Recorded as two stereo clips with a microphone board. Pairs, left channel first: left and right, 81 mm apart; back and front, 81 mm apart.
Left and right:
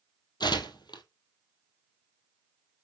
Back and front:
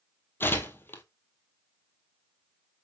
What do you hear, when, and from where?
0.4 s tearing paper: 115° left, 1.7 m